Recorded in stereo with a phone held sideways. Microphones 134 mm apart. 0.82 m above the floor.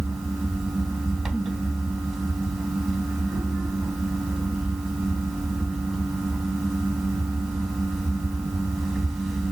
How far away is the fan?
About 3 m.